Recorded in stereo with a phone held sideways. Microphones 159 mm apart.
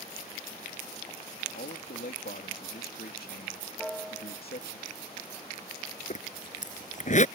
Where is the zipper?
50° left (ahead or behind).